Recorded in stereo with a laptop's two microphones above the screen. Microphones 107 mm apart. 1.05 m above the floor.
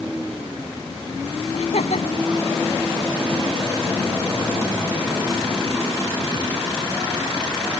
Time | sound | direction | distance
1.5 | laughter | 75° left (ahead or behind) | ?